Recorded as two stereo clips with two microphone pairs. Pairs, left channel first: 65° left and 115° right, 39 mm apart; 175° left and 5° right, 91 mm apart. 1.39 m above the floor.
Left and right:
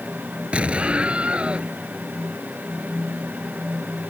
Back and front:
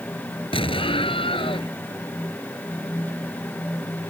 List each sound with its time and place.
0.5 s an explosion: 170° right